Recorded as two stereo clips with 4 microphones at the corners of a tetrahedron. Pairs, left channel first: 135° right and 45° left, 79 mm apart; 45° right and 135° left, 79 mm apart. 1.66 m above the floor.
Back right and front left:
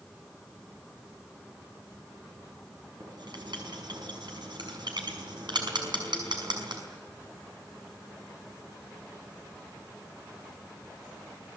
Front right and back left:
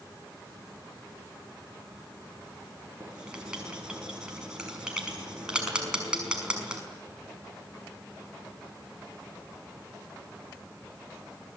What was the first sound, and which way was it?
Writing, 55° left.